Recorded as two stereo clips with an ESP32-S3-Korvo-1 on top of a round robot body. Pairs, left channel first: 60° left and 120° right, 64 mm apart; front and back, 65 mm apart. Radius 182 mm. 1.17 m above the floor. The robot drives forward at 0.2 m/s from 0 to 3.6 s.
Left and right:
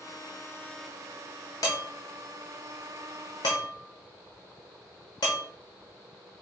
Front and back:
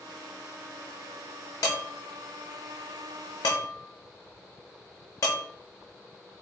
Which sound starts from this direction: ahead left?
Dishes clattering, at 1.6 s.